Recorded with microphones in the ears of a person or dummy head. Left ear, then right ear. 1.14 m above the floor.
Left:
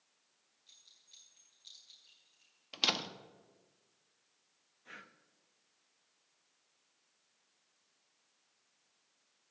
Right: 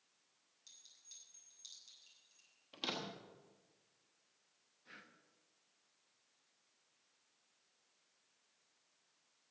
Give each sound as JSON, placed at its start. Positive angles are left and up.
{"t": 0.7, "sound": "a clink", "side_deg": -70, "distance_m": 6.5}
{"t": 2.7, "sound": "a door slam", "side_deg": 30, "distance_m": 1.0}
{"t": 4.8, "sound": "breathing", "side_deg": 20, "distance_m": 0.7}